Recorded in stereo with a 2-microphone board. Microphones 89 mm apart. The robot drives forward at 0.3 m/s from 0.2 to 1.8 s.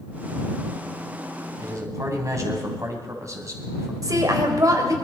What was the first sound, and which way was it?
A man speaking, 40° right (ahead or behind).